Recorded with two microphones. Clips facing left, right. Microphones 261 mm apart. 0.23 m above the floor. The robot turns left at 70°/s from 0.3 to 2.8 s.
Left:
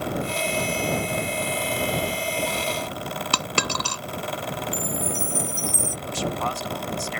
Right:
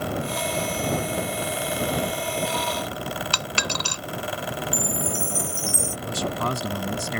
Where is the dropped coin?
65° left (ahead or behind).